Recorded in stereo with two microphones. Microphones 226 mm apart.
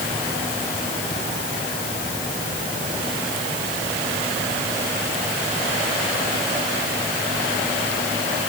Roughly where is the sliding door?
I don't hear a sliding door.